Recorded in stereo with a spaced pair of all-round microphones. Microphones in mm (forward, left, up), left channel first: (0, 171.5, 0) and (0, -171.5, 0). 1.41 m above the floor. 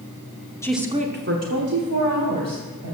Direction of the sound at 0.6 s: 10° left (ahead or behind).